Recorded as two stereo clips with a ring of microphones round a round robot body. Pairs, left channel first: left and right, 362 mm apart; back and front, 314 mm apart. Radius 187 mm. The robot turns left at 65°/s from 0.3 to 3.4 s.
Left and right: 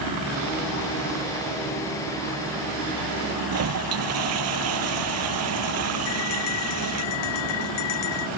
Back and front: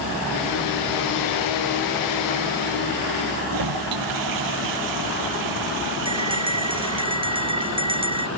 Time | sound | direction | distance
3.5 | a toilet flushing | 40° right | ?
6.0 | a bell | 75° left | ?